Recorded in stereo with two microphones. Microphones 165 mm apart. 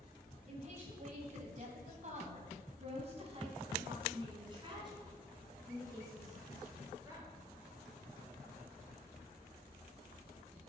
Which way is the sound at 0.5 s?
45° right (ahead or behind).